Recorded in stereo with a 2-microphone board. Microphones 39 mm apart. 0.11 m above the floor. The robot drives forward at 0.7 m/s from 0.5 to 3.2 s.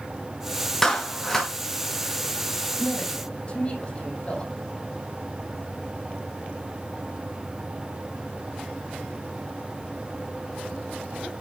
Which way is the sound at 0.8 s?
15° left (ahead or behind).